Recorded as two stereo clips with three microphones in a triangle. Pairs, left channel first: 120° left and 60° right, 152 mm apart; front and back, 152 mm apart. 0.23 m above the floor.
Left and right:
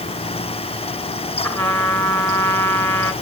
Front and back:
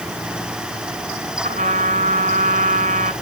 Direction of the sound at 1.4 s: 175° right.